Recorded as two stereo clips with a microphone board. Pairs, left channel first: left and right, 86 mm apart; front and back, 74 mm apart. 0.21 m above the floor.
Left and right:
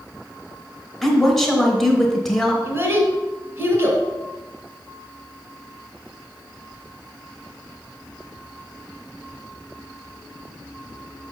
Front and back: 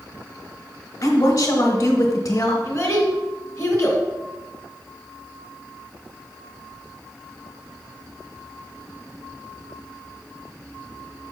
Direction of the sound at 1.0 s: 10° left.